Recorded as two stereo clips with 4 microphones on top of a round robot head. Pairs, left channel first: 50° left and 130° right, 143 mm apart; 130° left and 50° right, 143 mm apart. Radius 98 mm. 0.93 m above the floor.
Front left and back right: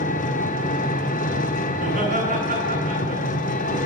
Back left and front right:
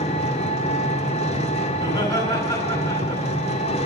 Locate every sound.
0.0 s an engine running: 85° left, 1.3 m
1.7 s laughter: 165° right, 7 m